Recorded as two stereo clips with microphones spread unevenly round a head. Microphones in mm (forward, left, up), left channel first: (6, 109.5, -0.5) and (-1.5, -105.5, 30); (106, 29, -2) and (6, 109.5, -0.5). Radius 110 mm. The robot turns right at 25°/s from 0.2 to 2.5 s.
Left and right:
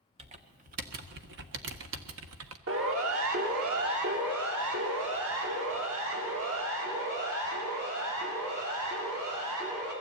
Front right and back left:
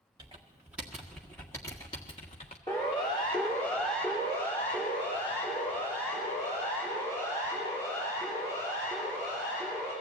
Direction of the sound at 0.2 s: 150° right.